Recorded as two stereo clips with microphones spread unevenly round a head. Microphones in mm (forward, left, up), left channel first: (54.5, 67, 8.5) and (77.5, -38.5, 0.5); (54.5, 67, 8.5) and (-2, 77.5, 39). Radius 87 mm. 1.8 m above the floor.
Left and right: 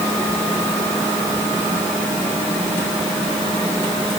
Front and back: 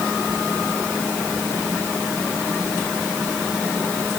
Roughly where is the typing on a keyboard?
No typing on a keyboard in this recording.